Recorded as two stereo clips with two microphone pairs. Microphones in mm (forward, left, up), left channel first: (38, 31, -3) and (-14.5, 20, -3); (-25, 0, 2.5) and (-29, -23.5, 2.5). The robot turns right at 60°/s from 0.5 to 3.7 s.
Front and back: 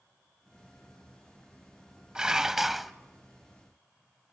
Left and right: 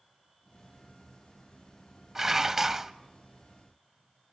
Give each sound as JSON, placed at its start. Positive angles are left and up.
{"t": 2.1, "sound": "dishes clattering", "azimuth_deg": -120, "distance_m": 0.7}